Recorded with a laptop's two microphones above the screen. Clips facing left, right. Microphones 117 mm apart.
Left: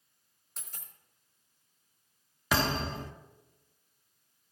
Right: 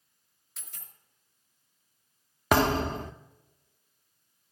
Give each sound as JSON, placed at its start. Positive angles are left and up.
{"t": 0.6, "sound": "a dropped coin", "side_deg": 45, "distance_m": 2.5}
{"t": 2.5, "sound": "a thud", "side_deg": -60, "distance_m": 0.7}